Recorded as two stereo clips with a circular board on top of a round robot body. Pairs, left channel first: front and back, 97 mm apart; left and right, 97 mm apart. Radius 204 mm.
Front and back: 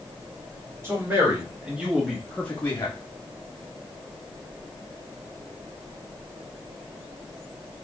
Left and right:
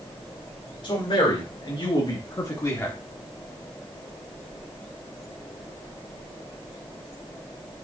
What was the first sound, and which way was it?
A man speaking, 120° left.